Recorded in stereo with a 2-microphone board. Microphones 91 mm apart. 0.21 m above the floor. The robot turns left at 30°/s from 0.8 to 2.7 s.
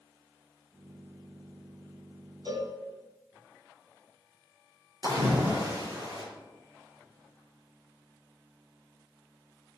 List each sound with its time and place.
2.5 s a cowbell: 45° right (ahead or behind), 2.5 m
5.0 s a splash: 40° right (ahead or behind), 5 m